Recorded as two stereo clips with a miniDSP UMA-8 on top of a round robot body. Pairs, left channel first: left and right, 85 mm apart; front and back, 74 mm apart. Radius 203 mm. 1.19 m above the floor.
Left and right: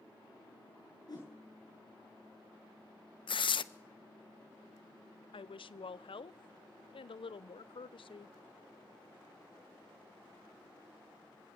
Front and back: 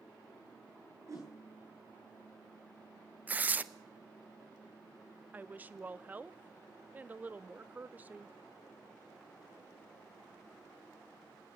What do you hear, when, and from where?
1.1 s a whoosh: 135° left, 7.5 m
3.3 s tearing paper: 110° left, 0.6 m
5.3 s a woman speaking: 110° left, 0.6 m